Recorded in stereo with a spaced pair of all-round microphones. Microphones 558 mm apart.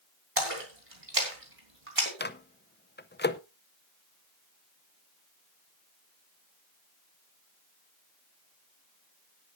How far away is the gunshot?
No gunshot in this recording.